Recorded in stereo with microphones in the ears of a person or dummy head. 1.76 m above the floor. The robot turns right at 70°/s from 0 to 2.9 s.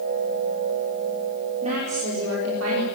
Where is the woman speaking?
145° right, 5 m; by 2.9 s 60° right, 5 m.